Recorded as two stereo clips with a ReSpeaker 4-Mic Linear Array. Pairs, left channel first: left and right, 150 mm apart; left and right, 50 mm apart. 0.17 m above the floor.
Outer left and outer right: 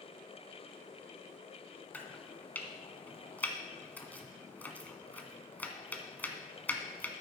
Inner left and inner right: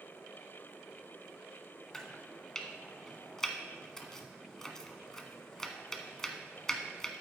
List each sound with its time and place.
1.9 s chopping: 10° left (ahead or behind), 1.4 m